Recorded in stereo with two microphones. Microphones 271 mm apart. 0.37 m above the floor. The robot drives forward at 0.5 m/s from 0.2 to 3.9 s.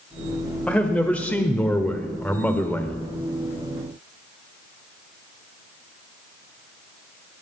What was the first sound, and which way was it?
A man speaking, 5° left (ahead or behind).